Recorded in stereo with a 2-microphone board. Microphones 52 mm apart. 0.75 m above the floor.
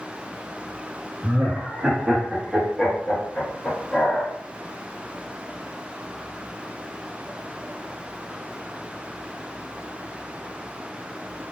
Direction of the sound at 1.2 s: 30° right (ahead or behind).